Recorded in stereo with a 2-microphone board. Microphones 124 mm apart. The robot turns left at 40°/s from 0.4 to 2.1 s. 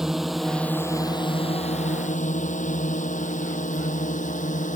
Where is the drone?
5° right (ahead or behind); by 4.8 s 75° left (ahead or behind).